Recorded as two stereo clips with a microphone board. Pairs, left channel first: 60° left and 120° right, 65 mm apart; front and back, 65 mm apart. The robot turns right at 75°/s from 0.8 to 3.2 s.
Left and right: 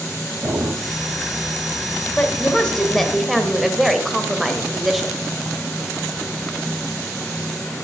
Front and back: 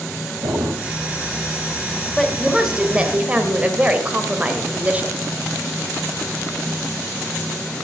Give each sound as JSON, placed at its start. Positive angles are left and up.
{"t": 0.4, "sound": "a drawer", "azimuth_deg": -175, "distance_m": 4.5}
{"t": 2.2, "sound": "a woman speaking", "azimuth_deg": 70, "distance_m": 1.4}